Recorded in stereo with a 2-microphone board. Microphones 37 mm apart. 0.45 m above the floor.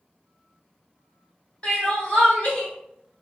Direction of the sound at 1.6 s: 30° left (ahead or behind).